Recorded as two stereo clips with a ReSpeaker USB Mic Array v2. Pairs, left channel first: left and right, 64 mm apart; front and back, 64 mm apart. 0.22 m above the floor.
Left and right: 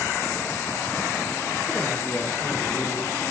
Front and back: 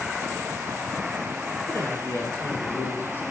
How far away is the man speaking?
About 3 m.